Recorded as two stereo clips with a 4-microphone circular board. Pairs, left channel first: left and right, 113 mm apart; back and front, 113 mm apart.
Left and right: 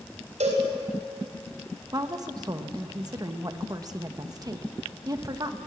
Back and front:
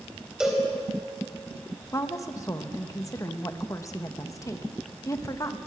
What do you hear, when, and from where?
0.4 s a cowbell: 85° right, 3.5 m
1.9 s a woman speaking: 130° right, 1.2 m